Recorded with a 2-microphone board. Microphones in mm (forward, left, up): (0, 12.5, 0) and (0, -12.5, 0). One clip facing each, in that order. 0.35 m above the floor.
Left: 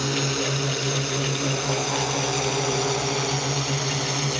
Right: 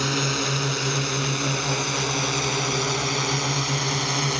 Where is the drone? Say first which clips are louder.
Right 1 dB; 20° right (ahead or behind).